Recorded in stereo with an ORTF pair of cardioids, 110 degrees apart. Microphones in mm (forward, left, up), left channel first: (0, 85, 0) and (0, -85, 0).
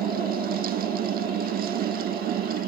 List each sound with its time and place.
0.0 s a fan: 60° right